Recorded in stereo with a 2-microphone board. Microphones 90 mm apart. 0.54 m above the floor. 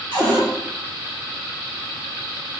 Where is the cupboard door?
60° right (ahead or behind), 1.8 m.